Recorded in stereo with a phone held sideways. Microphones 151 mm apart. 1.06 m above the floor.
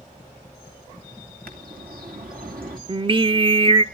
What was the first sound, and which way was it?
A bird, 75° right (ahead or behind).